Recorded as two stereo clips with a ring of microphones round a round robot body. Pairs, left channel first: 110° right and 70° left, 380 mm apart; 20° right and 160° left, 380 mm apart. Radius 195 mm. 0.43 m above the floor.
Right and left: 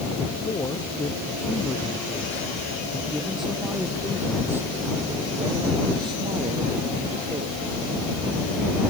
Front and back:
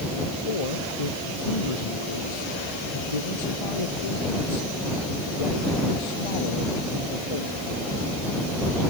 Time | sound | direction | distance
0.5 | a man speaking | 35° right | ?